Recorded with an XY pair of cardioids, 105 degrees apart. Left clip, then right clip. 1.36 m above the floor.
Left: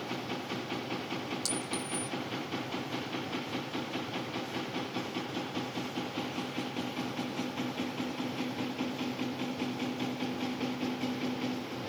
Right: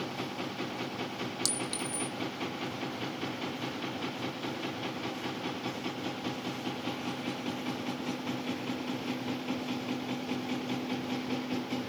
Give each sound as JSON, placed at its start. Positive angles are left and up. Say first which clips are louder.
{"t": 1.4, "sound": "a clink", "louder": "right 2 dB", "azimuth_deg": -40, "distance_m": 1.6}